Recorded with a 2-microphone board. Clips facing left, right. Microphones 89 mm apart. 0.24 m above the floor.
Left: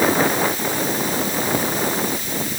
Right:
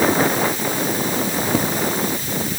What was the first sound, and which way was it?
Only background noise.